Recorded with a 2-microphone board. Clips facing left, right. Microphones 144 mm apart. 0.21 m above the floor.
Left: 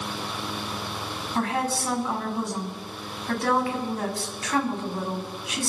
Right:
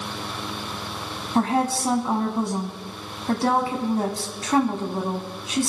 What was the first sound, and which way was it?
A woman speaking, 35° right (ahead or behind).